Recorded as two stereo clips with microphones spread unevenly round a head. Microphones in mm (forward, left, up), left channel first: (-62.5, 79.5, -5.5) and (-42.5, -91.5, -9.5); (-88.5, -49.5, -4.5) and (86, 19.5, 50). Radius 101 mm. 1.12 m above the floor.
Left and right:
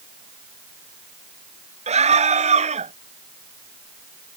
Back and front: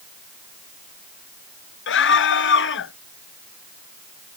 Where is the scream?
135° right.